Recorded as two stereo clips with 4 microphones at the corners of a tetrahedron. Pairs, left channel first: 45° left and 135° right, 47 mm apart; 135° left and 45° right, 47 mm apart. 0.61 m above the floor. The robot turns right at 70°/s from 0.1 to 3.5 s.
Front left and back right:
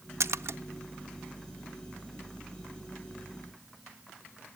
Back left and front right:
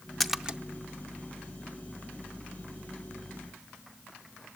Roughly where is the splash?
Behind right.